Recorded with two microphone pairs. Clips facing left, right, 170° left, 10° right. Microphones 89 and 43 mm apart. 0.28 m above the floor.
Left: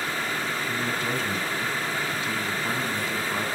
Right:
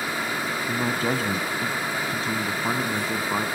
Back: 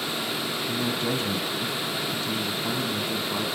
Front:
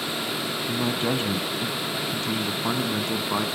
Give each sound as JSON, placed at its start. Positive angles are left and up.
{"t": 0.7, "sound": "a man speaking", "azimuth_deg": -65, "distance_m": 2.0}